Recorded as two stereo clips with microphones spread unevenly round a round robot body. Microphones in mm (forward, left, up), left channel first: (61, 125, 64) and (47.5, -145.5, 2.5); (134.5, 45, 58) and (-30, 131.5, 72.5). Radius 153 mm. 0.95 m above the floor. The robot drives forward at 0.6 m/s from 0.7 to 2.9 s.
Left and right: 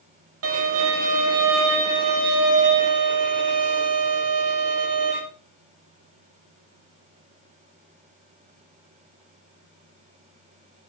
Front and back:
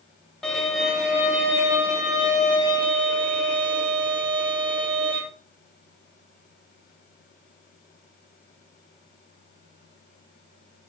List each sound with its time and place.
0.4 s a violin: 115° right, 2.5 m; by 5.2 s 140° right, 3 m